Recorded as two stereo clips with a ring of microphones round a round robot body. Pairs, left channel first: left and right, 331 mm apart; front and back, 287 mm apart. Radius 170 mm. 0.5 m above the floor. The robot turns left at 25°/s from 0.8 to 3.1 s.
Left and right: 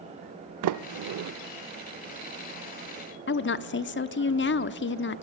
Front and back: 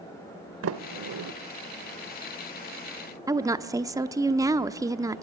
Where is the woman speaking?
110° left, 0.9 m.